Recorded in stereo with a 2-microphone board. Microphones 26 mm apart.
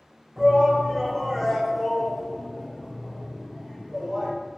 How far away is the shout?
About 1.3 m.